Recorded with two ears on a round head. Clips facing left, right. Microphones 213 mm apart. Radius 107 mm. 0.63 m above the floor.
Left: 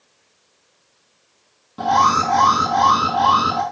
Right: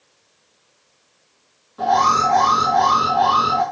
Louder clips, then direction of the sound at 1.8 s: Right 1 dB; 60° left (ahead or behind).